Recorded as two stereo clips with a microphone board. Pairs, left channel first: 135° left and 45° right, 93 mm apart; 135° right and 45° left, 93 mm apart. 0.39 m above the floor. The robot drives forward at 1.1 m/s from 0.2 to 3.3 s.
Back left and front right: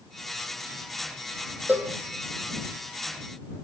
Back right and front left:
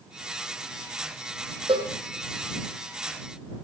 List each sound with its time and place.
1.7 s a cowbell: 25° left, 5.5 m